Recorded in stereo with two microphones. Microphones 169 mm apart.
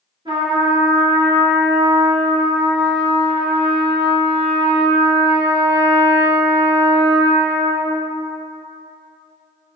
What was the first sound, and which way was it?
A trumpet, 25° right (ahead or behind).